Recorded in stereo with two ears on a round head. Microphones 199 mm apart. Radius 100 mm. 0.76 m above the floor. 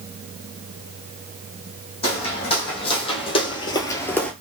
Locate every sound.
2.0 s footsteps: 25° left (ahead or behind), 2.0 m; by 4.3 s 5° left (ahead or behind), 0.7 m